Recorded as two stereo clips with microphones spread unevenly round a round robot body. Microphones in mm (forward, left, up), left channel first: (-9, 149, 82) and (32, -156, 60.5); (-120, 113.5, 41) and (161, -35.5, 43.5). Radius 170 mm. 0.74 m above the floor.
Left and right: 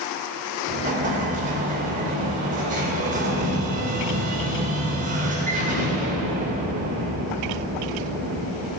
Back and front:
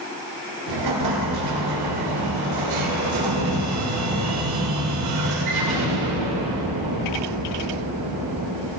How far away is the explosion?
About 2 m.